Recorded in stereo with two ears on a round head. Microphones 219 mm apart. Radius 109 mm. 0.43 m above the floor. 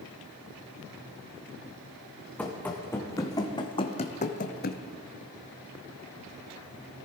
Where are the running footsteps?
5° left (ahead or behind), 1.8 m; by 4.8 s 45° left (ahead or behind), 1.0 m.